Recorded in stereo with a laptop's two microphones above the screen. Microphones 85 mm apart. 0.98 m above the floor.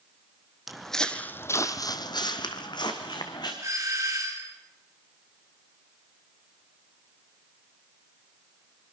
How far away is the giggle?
I don't hear a giggle.